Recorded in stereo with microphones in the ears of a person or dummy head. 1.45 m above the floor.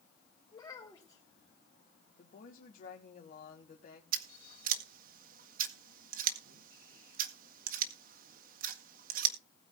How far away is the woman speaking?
About 1.8 m.